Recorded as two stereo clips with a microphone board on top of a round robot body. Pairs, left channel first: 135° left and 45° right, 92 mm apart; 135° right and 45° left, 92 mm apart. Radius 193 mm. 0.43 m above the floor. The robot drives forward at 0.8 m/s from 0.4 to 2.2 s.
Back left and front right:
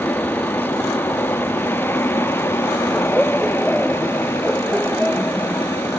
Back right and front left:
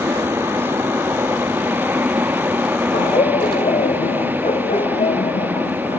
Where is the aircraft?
85° left; by 6.0 s 95° left.